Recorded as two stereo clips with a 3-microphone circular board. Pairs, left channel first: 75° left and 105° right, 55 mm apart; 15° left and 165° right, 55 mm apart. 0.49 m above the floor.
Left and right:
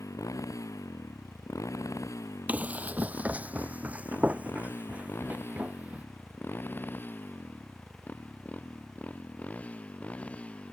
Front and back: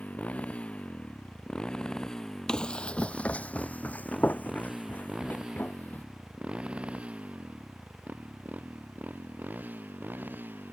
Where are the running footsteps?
55° right; by 6.0 s 40° right.